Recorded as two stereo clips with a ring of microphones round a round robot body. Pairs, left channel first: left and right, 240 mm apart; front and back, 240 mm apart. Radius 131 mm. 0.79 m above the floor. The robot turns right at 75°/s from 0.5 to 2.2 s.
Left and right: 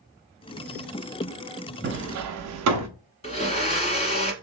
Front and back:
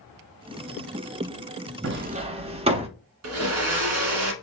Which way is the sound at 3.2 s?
155° left.